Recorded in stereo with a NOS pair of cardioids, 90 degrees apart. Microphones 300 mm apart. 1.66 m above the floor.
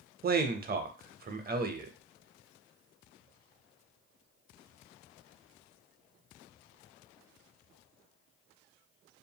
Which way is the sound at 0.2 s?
30° right.